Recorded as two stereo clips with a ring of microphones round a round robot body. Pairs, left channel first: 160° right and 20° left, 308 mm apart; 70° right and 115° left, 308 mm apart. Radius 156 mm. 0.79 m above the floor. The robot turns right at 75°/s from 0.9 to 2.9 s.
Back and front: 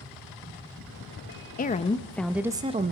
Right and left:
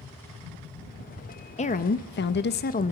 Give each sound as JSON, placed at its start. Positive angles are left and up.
{"t": 1.6, "sound": "a woman speaking", "azimuth_deg": -120, "distance_m": 0.5}